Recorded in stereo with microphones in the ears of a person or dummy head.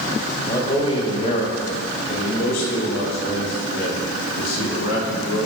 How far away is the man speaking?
About 2.5 m.